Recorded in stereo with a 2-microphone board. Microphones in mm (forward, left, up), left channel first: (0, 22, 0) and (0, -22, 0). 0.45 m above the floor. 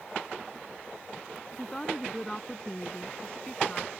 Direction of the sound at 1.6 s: 5° left (ahead or behind).